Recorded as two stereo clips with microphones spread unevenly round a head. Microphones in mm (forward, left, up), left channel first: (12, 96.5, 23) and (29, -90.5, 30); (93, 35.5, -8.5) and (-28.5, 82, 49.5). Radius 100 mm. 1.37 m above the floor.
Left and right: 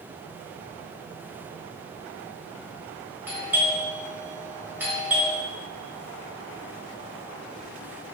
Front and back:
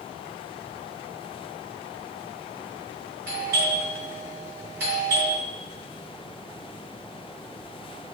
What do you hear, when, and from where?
3.3 s a doorbell: 165° right, 3 m